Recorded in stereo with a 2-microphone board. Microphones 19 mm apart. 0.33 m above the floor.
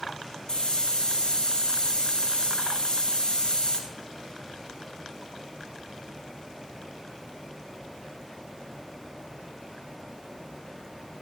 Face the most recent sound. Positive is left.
turn(degrees=45)  # may be behind; listen again after turning